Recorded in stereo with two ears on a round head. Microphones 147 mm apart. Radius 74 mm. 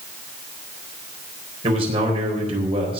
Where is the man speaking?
40° right (ahead or behind), 4 m.